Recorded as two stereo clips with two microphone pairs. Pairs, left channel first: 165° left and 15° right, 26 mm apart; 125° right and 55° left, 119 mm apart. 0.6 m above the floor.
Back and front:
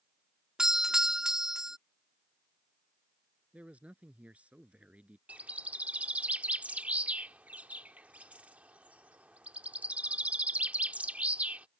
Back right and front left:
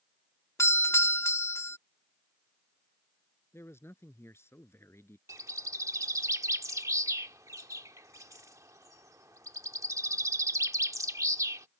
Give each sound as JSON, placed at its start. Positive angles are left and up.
{"t": 0.6, "sound": "a doorbell", "azimuth_deg": -70}
{"t": 3.5, "sound": "a man speaking", "azimuth_deg": -60}
{"t": 5.3, "sound": "a bird", "azimuth_deg": -5}